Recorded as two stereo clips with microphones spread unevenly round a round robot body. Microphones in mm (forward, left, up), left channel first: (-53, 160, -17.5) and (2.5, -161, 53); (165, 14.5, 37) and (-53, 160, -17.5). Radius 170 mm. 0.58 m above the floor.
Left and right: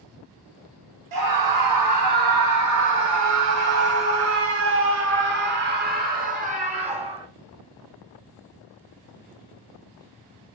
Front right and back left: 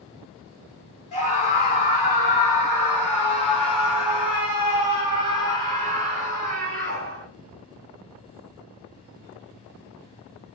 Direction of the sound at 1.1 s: 110° right.